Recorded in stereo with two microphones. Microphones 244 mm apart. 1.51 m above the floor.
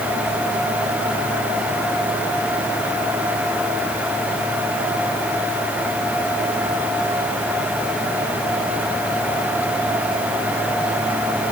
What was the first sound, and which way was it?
Only background noise.